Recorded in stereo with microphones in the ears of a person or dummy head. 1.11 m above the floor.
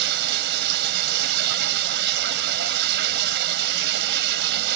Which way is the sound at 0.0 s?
60° right (ahead or behind).